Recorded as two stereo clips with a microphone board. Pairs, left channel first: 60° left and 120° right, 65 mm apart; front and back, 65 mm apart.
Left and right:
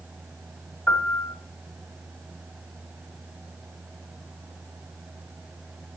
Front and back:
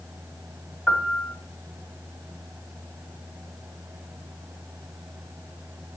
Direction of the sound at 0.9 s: 80° left.